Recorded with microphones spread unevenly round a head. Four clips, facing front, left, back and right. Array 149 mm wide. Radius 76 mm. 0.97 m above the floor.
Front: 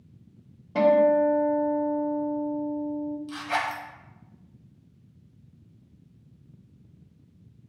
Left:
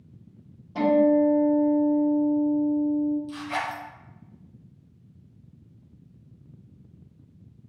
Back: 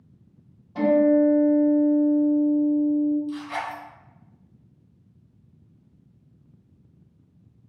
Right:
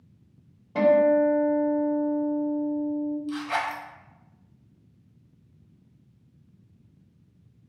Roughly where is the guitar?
Ahead right.